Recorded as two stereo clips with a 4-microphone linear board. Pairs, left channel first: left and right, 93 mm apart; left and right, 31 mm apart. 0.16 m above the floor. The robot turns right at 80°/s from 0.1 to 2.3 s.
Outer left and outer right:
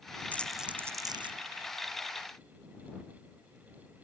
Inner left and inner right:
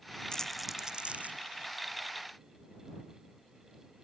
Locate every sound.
0.3 s crumpling: 20° left (ahead or behind); by 1.4 s 65° right (ahead or behind)